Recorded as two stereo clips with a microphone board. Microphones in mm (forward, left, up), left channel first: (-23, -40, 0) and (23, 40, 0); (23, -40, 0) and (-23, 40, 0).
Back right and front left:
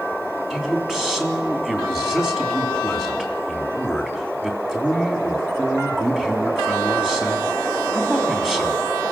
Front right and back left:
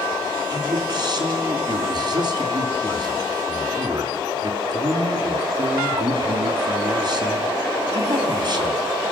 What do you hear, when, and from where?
0.5 s a man speaking: 145° left, 3.5 m